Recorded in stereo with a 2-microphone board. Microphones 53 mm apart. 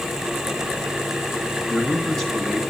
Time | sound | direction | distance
1.7 | a man speaking | 5° left (ahead or behind) | 1.9 m